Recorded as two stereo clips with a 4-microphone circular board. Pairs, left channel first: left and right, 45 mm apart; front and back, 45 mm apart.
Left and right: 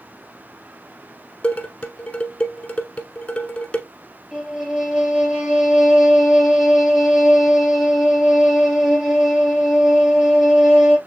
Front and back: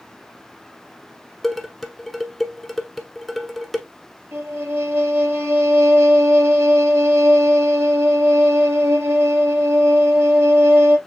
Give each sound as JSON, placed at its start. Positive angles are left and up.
{"t": 1.4, "sound": "dishes clattering", "azimuth_deg": 95, "distance_m": 1.0}
{"t": 4.3, "sound": "a violin", "azimuth_deg": -175, "distance_m": 2.0}